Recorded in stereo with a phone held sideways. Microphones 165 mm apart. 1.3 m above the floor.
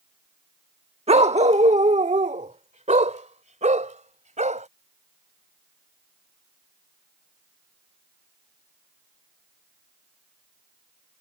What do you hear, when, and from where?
1.1 s a dog barking: 40° right (ahead or behind); by 4.7 s 45° right (ahead or behind)